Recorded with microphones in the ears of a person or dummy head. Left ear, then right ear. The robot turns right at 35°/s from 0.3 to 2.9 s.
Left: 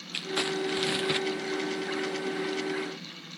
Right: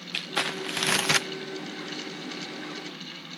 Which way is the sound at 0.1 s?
165° right.